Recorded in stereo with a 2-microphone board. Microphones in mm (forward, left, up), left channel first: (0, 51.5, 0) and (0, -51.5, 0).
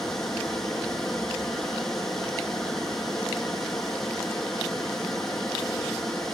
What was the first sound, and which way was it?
Running water, 5° left (ahead or behind).